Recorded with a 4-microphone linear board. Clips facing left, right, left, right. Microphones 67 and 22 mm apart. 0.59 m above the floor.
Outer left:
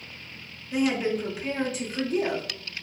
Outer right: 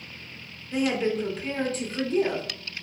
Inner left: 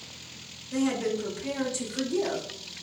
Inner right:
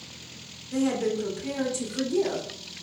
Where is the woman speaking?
5° left (ahead or behind), 0.8 m.